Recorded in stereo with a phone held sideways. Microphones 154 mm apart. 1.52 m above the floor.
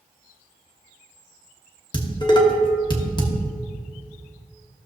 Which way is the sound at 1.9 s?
30° left (ahead or behind).